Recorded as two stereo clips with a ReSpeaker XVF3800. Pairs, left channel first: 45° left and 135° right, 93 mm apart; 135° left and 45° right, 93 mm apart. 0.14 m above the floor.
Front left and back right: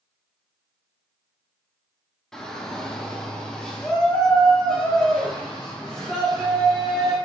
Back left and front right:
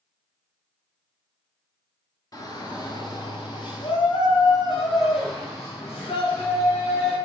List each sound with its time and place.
2.3 s a shout: 125° left, 2 m